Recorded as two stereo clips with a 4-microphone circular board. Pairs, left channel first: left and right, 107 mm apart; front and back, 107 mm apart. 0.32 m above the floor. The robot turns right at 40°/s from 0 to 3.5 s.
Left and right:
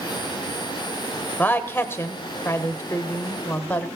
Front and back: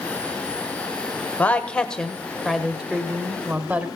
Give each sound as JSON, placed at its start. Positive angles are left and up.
{"t": 1.4, "sound": "a woman speaking", "azimuth_deg": 50, "distance_m": 0.9}